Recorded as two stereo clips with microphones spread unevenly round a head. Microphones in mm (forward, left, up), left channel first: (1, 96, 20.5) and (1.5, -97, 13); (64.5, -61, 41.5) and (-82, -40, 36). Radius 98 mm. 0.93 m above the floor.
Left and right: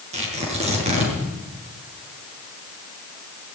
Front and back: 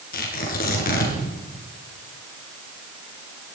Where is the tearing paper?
30° right, 6.5 m.